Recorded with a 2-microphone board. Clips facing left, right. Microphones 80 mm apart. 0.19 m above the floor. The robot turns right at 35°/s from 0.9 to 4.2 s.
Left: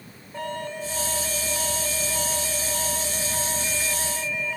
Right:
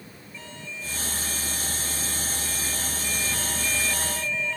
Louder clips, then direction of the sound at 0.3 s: Left 11 dB; 55° left.